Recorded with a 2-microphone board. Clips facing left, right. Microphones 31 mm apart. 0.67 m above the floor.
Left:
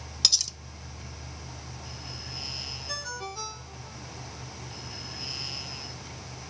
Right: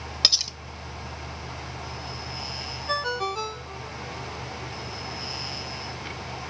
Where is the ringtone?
50° right (ahead or behind), 1.3 m.